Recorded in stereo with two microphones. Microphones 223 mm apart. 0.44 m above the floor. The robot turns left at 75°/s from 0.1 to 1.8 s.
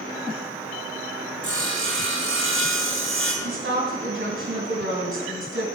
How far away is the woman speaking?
About 3 m.